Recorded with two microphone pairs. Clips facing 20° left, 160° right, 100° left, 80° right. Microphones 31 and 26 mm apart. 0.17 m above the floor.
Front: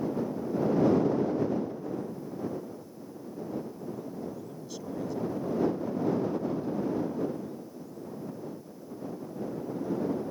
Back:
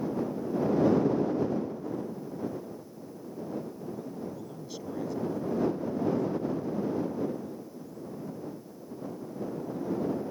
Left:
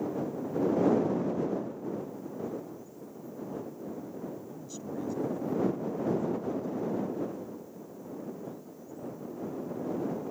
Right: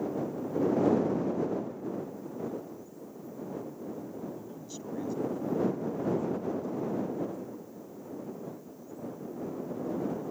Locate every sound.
4.3 s a man speaking: 120° right; by 7.6 s 35° left